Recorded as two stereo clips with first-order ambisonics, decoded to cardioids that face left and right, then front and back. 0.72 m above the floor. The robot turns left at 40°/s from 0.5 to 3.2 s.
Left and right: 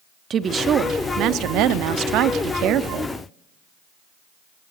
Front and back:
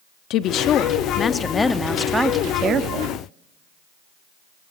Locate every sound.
0.3 s a woman speaking: 30° right, 1.0 m; by 3.1 s 140° right, 1.0 m